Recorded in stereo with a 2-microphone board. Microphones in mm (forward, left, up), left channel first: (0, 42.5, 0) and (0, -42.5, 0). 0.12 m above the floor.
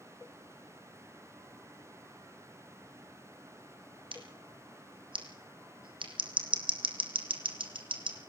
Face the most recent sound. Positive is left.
turn(degrees=-80)